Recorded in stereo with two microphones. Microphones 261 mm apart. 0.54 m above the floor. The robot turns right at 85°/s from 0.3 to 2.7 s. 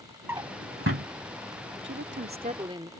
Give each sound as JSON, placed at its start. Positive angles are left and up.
{"t": 0.3, "sound": "a drawer", "side_deg": -10}
{"t": 1.8, "sound": "a woman speaking", "azimuth_deg": -100}